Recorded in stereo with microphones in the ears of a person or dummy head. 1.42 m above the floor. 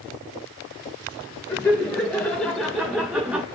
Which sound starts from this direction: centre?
Laughter, at 1.5 s.